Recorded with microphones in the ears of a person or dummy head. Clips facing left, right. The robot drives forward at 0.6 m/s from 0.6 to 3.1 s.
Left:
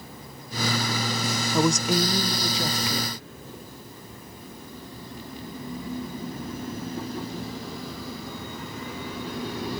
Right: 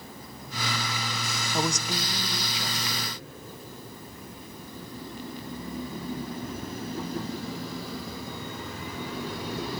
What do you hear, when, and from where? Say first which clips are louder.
1.5 s a woman speaking: left 7 dB; 70° left (ahead or behind), 0.5 m; by 3.2 s 25° left (ahead or behind), 1.2 m